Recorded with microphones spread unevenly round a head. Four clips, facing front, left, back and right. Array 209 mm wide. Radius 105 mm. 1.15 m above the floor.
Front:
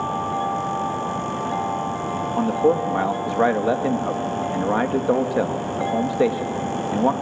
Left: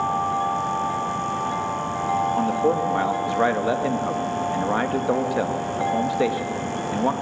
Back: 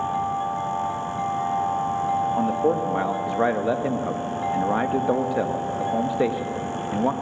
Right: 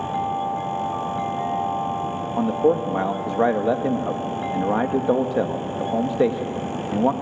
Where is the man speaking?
30° right, 1.6 m.